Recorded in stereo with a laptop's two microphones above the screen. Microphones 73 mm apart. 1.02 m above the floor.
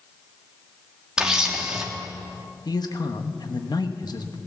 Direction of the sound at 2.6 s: 65° left (ahead or behind).